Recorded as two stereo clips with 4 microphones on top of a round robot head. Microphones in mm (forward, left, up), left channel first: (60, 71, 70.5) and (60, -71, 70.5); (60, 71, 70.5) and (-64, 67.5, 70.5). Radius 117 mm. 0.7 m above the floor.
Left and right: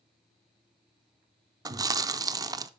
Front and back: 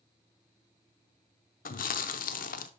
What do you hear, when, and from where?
1.6 s chewing: 25° right, 0.6 m